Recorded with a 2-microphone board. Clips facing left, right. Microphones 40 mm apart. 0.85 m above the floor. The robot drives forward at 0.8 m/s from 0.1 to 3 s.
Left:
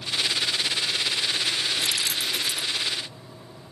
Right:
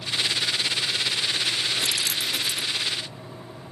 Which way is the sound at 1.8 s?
45° right (ahead or behind).